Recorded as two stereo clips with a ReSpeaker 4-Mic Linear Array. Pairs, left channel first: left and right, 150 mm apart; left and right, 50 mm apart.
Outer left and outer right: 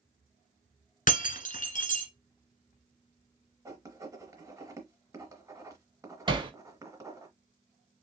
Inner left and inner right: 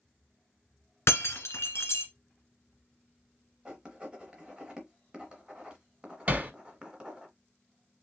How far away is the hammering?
About 0.8 m.